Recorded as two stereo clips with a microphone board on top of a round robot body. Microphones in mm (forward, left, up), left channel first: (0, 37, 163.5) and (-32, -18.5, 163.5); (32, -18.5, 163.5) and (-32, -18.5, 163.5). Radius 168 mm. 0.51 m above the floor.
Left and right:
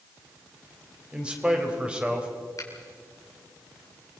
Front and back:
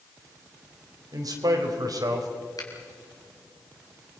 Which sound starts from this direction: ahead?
A finger snap, at 2.6 s.